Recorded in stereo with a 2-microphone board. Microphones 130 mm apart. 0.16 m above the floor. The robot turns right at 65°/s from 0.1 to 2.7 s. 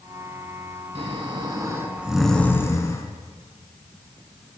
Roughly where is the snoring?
Right.